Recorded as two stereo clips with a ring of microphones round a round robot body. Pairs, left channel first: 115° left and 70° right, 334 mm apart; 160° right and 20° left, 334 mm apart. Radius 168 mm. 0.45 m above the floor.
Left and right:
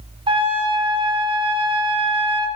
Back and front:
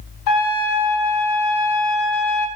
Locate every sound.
0.3 s a trumpet: 140° right, 0.6 m